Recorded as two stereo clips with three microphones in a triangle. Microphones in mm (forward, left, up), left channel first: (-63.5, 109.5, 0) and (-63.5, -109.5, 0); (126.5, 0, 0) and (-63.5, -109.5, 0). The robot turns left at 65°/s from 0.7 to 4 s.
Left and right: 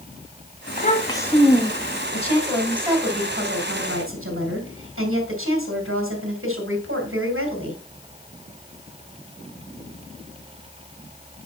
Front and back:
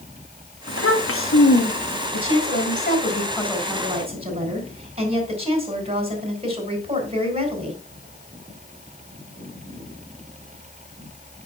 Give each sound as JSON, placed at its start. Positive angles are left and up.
{"t": 0.7, "sound": "a child speaking", "azimuth_deg": 45, "distance_m": 1.2}
{"t": 2.1, "sound": "a woman speaking", "azimuth_deg": 35, "distance_m": 4.0}